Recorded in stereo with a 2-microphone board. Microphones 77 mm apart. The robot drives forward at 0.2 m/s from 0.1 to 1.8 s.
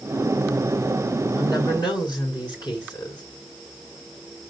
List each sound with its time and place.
1.3 s a woman speaking: 75° left (ahead or behind), 5 m